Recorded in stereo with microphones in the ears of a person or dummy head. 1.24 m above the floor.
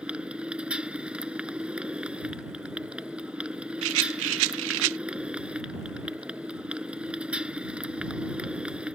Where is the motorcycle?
5° right (ahead or behind).